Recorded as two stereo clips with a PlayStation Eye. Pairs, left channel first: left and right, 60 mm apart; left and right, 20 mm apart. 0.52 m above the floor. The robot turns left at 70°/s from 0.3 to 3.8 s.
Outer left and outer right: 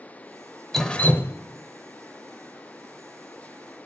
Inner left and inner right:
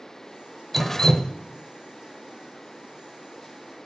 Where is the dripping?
175° left, 0.6 m; by 1.3 s 135° left, 0.6 m.